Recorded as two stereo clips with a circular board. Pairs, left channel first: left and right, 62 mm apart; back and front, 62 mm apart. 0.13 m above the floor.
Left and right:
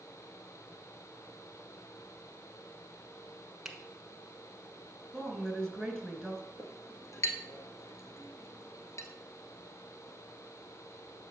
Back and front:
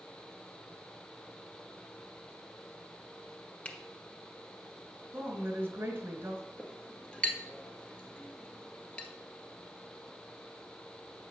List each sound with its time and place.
3.6 s a finger snap: 160° right, 1.2 m
5.1 s a woman speaking: 10° left, 1.8 m
6.6 s a clink: 110° left, 1.4 m